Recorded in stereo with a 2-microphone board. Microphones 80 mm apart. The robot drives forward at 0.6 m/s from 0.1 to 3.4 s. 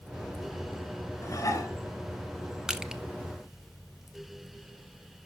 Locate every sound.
1.2 s dishes clattering: 40° left (ahead or behind), 1.7 m; by 1.7 s 45° left (ahead or behind), 1.6 m
2.7 s crushing: 10° right (ahead or behind), 0.6 m